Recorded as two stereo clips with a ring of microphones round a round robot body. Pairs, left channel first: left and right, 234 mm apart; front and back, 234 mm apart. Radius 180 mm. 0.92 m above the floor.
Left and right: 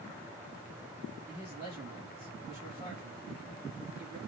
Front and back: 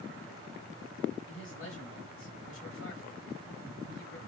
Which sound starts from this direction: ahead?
A man speaking, at 1.3 s.